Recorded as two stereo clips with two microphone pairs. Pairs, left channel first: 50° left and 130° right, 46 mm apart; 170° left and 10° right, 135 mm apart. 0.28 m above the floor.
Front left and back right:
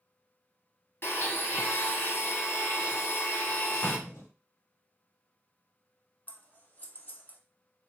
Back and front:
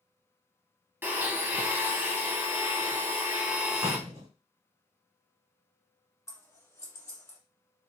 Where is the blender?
55° left, 1.0 m.